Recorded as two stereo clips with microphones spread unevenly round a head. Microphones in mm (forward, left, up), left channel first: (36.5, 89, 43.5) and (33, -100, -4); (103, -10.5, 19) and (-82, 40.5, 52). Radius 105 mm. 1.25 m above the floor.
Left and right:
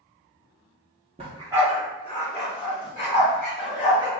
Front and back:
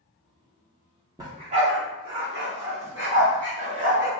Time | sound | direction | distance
1.2 | a dog barking | 155° right | 0.8 m